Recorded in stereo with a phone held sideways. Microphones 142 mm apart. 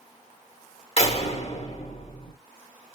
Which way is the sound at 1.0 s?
45° left (ahead or behind).